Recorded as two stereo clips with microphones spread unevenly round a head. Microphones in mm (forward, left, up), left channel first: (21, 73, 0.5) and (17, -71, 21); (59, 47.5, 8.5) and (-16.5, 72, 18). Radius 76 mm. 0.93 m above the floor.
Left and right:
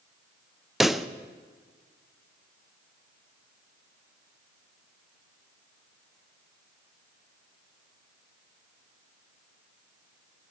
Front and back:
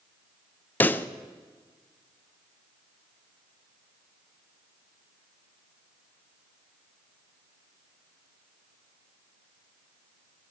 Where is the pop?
10° left, 0.8 m.